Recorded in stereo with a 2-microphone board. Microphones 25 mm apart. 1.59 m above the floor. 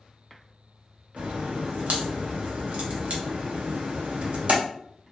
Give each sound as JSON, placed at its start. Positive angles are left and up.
{"t": 1.2, "sound": "a crack", "side_deg": -75, "distance_m": 0.6}